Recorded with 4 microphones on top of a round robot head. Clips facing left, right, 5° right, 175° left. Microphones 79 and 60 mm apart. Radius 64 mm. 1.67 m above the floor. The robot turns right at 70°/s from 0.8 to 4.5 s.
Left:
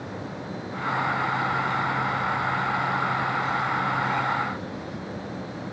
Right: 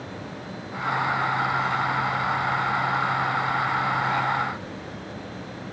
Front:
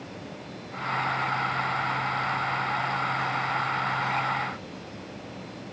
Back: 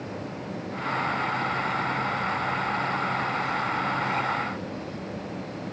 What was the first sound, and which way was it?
Only background noise.